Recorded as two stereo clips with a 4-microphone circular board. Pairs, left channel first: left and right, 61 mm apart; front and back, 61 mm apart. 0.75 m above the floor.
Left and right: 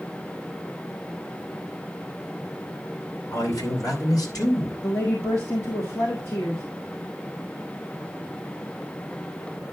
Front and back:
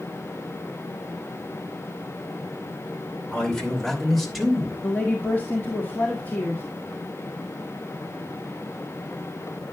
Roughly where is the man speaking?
Left.